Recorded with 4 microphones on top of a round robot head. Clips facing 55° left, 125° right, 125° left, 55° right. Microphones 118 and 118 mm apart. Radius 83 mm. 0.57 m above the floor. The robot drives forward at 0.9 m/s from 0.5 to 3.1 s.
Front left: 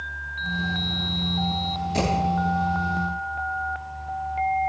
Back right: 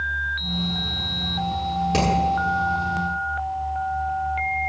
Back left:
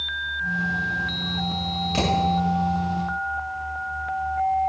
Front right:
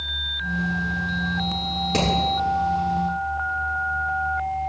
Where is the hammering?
100° right, 7.5 m; by 2.1 s 105° right, 7.5 m.